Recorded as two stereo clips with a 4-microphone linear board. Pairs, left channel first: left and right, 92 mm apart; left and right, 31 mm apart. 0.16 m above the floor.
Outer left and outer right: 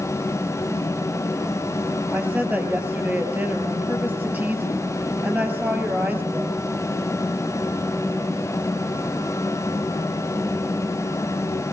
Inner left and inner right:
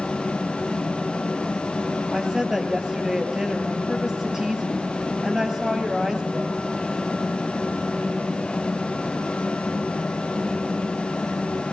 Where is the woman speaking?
20° right (ahead or behind), 4 m.